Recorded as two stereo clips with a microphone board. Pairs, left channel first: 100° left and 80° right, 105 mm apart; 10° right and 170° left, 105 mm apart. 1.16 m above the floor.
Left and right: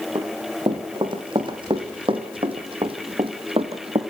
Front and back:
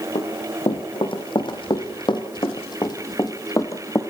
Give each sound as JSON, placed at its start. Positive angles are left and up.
{"t": 0.1, "sound": "running footsteps", "azimuth_deg": -40, "distance_m": 4.0}